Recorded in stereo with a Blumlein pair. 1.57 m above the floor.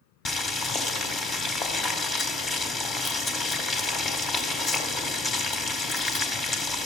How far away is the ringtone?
I don't hear a ringtone.